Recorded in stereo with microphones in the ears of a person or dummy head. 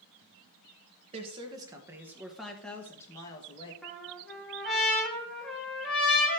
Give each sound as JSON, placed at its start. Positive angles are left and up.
{"t": 1.1, "sound": "a woman speaking", "side_deg": -30, "distance_m": 1.8}
{"t": 3.8, "sound": "a trumpet", "side_deg": 0, "distance_m": 3.0}